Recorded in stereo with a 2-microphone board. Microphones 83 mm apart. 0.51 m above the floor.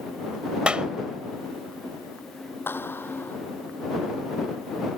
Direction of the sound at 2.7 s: 25° left (ahead or behind).